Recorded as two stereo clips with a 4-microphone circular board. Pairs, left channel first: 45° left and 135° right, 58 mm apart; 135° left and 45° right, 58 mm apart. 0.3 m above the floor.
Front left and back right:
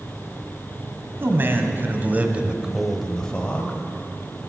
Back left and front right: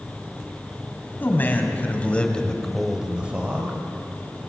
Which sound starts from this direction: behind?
A man speaking, at 1.2 s.